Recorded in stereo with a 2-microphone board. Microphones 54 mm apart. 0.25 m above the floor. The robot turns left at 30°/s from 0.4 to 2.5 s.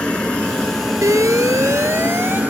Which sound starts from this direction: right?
An alarm, at 1.0 s.